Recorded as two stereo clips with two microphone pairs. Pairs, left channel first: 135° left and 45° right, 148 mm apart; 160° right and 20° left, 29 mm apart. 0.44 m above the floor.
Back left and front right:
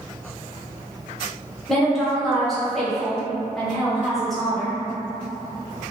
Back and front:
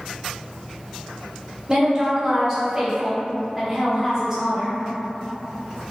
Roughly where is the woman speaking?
Ahead left.